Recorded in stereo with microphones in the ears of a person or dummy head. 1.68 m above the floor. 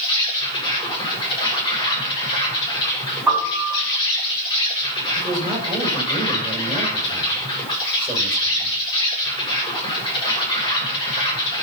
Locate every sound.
0.0 s an insect: 25° left (ahead or behind), 7.5 m
3.3 s a piano: 5° right (ahead or behind), 7 m
5.2 s a man speaking: 15° right (ahead or behind), 6 m